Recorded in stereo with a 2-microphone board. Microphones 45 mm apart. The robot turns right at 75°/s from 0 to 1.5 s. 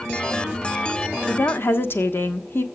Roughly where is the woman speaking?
Left.